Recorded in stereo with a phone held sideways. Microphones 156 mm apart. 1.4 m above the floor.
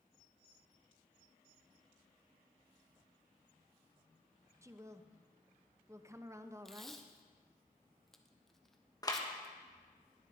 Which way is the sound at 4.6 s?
20° right (ahead or behind).